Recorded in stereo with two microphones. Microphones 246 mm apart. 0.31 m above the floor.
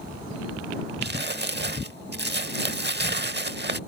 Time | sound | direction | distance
1.0 | crumpling | 45° right (ahead or behind) | ?